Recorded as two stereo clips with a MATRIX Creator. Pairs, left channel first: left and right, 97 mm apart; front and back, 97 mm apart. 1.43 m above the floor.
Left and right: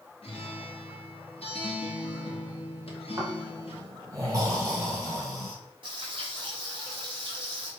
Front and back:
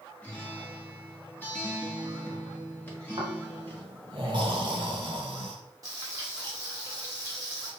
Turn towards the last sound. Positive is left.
turn(degrees=-125)